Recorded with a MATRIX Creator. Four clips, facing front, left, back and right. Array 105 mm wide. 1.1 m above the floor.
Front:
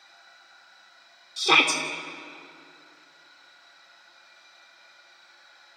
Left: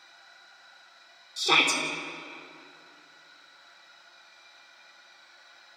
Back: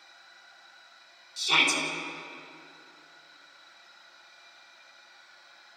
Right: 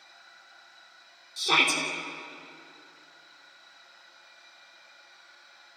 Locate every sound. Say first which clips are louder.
1.4 s a shout: left 1 dB, front 5 dB; 15° left, 3 m